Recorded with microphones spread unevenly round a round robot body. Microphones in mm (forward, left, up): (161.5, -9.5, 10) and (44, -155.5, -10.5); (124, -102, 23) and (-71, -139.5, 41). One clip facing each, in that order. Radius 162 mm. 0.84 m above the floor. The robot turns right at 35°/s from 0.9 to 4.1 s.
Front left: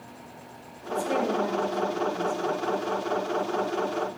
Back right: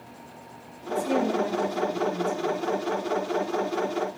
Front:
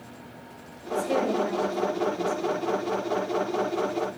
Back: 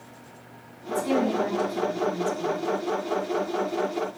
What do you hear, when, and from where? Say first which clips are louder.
0.9 s a woman speaking: back right 2 dB, back 1 dB; 140° left, 6 m; by 2.6 s 160° right, 6 m